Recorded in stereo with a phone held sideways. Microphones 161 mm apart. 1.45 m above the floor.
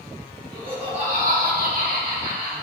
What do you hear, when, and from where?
0.5 s laughter: 30° right (ahead or behind), 2 m; by 2.5 s 80° right, 2.5 m